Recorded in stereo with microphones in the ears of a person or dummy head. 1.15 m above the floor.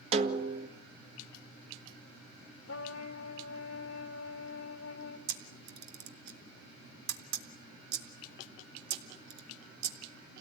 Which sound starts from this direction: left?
A trumpet, at 2.7 s.